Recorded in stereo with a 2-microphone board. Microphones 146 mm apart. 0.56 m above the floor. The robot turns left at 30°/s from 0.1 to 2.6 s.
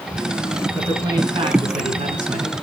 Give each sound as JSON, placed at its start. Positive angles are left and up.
{"t": 0.8, "sound": "a man speaking", "azimuth_deg": -15, "distance_m": 5.5}